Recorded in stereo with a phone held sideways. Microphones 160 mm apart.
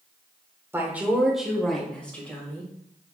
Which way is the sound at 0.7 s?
15° right (ahead or behind).